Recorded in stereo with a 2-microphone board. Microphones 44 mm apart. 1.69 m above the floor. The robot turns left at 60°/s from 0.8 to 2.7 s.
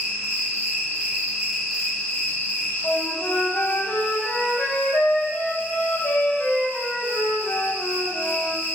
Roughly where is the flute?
Left.